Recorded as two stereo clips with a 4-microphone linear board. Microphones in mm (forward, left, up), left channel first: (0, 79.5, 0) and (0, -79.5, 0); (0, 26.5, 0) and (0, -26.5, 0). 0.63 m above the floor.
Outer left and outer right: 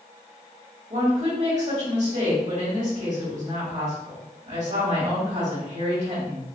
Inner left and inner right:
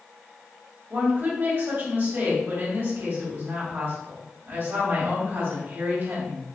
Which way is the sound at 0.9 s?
50° right (ahead or behind).